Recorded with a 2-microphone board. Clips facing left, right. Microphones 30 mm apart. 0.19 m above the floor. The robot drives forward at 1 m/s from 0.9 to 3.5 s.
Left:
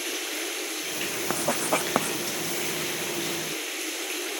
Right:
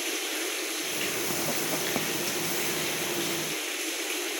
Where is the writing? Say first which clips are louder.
Left 4 dB; 65° left (ahead or behind); by 2.2 s 70° left (ahead or behind).